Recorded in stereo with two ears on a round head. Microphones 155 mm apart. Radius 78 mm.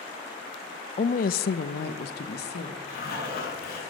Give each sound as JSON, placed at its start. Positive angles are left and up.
{"t": 1.0, "sound": "a woman speaking", "side_deg": 35, "distance_m": 0.5}
{"t": 2.9, "sound": "a zipper", "side_deg": 60, "distance_m": 6.0}